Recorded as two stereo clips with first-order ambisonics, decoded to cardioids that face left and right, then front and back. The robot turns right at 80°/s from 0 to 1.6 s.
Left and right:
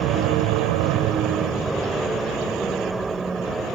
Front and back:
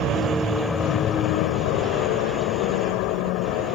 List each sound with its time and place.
0.0 s an aircraft: 135° right; by 3.8 s 10° right